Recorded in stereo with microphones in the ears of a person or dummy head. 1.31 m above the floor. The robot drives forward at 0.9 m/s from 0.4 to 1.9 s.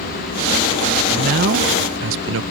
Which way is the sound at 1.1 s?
50° right (ahead or behind).